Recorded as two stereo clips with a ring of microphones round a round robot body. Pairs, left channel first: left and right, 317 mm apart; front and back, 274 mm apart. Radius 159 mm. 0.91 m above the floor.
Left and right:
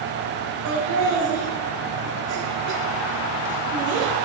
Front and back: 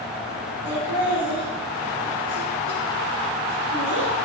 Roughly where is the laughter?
Behind right.